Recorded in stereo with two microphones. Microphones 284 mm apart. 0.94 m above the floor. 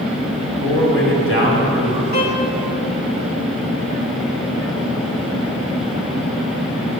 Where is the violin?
75° left (ahead or behind), 2 m.